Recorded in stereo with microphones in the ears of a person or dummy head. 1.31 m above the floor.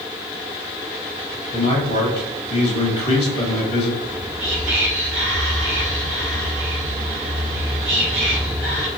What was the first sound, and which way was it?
A man speaking, 45° left (ahead or behind).